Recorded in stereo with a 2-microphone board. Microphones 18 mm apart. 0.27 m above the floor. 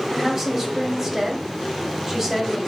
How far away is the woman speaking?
About 1.0 m.